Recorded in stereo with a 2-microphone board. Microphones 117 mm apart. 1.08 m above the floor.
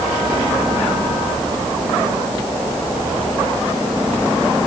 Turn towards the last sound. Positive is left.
No sound to turn to.